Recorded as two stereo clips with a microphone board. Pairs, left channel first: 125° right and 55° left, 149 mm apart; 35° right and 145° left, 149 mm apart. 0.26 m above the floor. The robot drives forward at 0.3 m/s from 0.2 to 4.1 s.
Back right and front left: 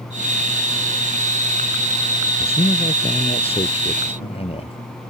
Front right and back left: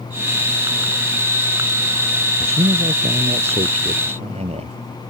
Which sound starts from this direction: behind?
A man speaking, at 2.4 s.